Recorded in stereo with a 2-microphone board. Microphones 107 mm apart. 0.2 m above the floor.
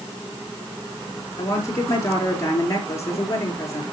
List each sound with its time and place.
1.4 s a woman speaking: 30° left (ahead or behind), 4 m